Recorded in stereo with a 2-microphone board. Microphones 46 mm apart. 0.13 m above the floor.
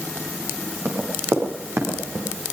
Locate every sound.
0.8 s running footsteps: 55° right (ahead or behind), 7.5 m; by 2.3 s 60° right (ahead or behind), 6.5 m